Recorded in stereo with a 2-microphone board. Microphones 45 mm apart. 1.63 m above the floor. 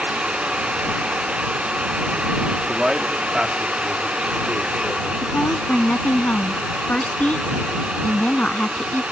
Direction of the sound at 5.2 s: 35° left (ahead or behind).